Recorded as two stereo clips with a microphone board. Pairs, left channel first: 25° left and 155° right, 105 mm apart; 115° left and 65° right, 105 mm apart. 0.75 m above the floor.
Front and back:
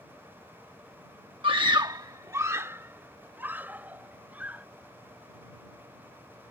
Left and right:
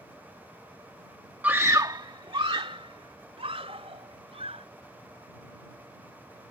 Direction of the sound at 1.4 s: 140° right.